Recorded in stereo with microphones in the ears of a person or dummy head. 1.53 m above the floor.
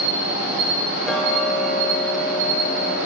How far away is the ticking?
About 0.6 m.